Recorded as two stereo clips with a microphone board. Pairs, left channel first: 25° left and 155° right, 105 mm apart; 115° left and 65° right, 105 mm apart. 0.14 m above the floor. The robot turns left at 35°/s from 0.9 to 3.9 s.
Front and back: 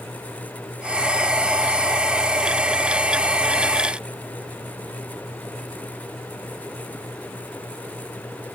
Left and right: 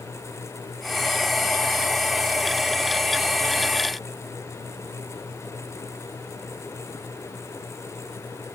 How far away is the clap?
I don't hear a clap.